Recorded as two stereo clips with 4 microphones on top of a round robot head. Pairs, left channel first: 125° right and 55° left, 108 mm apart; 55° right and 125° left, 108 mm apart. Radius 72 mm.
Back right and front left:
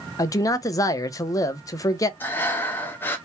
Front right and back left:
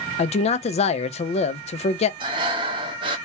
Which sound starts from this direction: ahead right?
A man speaking, at 0.2 s.